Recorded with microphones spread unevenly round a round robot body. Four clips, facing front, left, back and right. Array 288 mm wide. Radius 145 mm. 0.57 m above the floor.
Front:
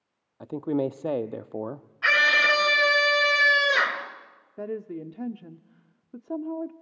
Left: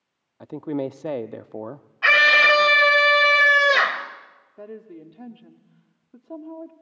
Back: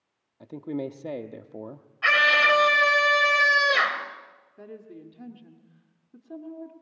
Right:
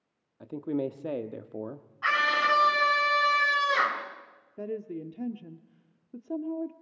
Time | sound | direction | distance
0.4 | a man speaking | 35° left | 0.6 m
2.0 | a scream | 100° left | 3 m
4.6 | a woman speaking | 35° right | 1.1 m